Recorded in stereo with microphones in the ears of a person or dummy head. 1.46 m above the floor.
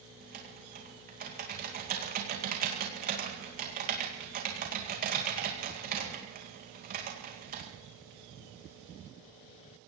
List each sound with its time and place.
0.2 s typing on a keyboard: 40° right (ahead or behind), 2 m